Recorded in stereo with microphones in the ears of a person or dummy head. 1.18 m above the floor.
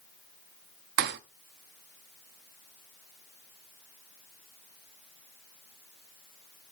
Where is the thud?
55° right (ahead or behind), 0.9 m.